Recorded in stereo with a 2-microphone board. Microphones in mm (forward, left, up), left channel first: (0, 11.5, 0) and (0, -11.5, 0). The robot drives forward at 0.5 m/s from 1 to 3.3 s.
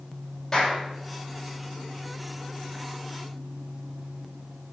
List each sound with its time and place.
0.5 s a clap: 15° left (ahead or behind), 6.5 m